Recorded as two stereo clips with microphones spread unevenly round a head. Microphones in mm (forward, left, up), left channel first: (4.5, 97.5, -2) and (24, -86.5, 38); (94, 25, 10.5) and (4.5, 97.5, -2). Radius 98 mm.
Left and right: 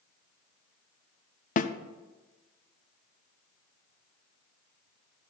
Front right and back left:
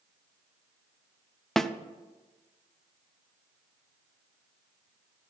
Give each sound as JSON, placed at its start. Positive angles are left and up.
{"t": 1.6, "sound": "a snare drum", "azimuth_deg": 45, "distance_m": 0.6}